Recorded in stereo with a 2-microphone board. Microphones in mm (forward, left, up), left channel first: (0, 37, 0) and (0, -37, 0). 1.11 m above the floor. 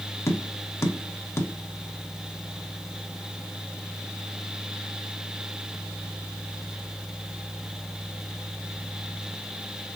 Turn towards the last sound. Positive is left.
turn(degrees=35)  # may be behind; listen again after turning